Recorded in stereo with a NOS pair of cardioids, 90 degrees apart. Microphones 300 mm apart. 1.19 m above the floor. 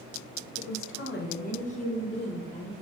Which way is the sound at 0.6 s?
55° left.